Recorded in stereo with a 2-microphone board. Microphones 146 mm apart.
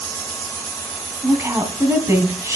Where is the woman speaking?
20° right (ahead or behind), 2.5 m.